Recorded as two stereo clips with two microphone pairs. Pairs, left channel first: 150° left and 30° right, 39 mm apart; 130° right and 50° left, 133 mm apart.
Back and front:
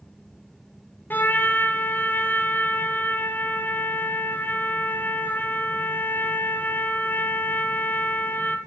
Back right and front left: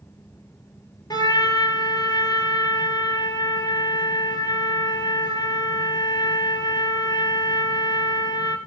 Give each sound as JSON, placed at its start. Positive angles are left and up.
{"t": 1.1, "sound": "a trumpet", "azimuth_deg": 170, "distance_m": 2.5}